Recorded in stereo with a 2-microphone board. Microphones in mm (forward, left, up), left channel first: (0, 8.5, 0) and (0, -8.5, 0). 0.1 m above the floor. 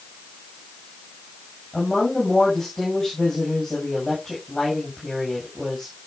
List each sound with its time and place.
1.7 s a woman speaking: 35° left (ahead or behind), 8 m